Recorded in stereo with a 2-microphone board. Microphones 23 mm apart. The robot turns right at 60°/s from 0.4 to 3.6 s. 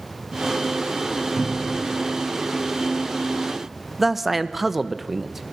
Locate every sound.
1.4 s a cupboard door: 80° left, 7.5 m; by 1.9 s 70° left (ahead or behind), 7.5 m
4.0 s a man speaking: 5° right (ahead or behind), 1.0 m